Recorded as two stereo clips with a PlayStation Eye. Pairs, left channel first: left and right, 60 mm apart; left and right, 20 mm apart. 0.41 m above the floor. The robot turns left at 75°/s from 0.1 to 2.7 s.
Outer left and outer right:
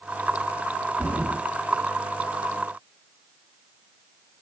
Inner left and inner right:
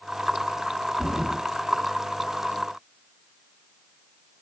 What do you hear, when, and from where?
1.0 s a thud: 30° right (ahead or behind), 2 m; by 1.4 s 5° right (ahead or behind), 2 m